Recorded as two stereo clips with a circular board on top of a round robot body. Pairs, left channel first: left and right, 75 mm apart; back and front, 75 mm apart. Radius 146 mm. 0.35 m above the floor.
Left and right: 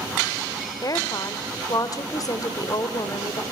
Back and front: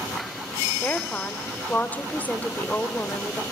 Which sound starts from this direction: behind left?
A woman speaking, at 0.8 s.